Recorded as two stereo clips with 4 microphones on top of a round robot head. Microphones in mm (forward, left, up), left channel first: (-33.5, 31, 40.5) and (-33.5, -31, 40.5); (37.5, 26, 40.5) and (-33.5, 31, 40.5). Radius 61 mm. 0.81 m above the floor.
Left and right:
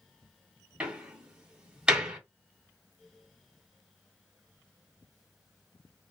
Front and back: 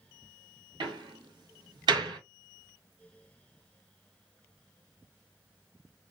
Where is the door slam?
165° right, 1.4 m.